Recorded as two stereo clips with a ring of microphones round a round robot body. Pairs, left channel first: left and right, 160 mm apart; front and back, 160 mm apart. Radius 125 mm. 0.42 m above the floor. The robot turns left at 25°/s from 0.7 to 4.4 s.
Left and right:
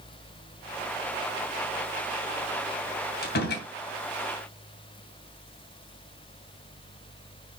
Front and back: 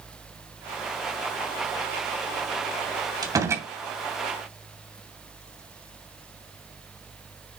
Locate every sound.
3.2 s a door slam: 115° left, 2.5 m; by 3.7 s 105° left, 2.5 m